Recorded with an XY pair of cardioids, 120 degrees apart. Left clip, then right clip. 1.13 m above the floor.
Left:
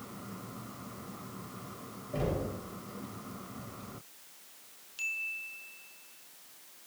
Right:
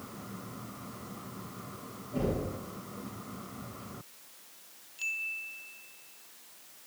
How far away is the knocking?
About 3.5 m.